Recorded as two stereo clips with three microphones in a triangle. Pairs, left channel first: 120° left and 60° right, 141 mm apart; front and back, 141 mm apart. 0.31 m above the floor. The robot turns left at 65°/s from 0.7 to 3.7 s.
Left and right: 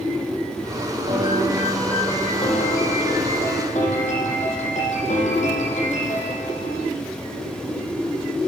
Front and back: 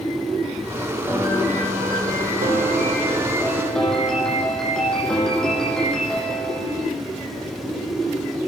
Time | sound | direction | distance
1.1 | a piano | 105° right | 8.5 m